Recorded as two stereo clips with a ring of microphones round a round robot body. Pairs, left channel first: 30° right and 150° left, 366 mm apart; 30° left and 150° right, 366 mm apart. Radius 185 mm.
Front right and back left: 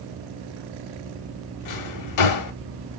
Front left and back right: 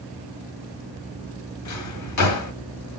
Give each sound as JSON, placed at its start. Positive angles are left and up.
{"t": 1.6, "sound": "a drawer", "azimuth_deg": -5, "distance_m": 0.8}